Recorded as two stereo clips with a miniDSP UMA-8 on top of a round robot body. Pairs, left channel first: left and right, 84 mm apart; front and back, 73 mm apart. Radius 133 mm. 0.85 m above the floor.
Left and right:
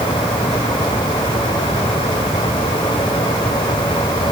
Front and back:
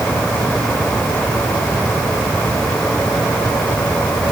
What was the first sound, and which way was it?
Only background noise.